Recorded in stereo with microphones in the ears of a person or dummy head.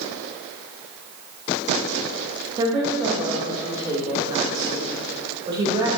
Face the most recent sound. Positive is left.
turn(degrees=-20)  # may be behind; listen again after turning